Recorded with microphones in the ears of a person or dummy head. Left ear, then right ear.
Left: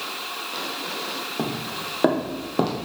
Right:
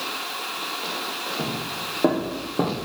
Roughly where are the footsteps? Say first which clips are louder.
Even; left.